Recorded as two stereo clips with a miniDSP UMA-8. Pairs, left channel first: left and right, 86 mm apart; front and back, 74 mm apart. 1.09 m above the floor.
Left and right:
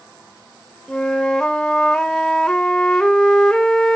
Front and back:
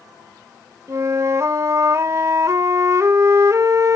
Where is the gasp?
I don't hear a gasp.